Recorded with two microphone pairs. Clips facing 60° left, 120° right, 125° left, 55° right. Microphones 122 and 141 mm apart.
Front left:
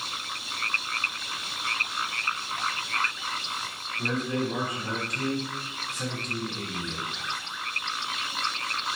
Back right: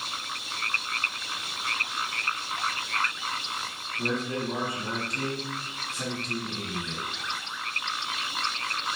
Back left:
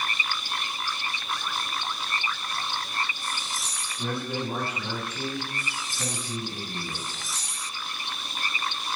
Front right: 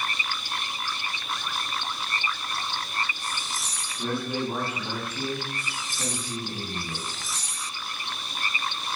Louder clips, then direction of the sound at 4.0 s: Front left 1 dB, front right 2 dB; 150° right.